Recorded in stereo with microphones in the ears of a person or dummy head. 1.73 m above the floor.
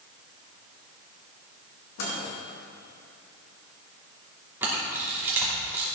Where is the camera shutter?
10° right (ahead or behind), 2.5 m.